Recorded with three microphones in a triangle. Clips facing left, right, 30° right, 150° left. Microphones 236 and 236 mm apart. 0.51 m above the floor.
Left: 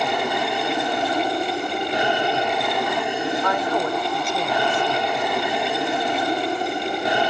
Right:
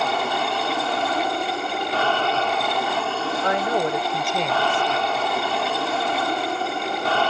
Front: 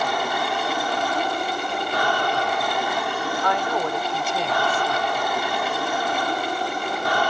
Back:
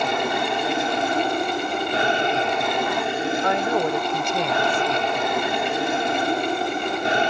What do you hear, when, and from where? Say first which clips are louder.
0.0 s an aircraft: left 2 dB, back 2 dB; 140° left
3.4 s a woman speaking: even, back 2 dB; 150° right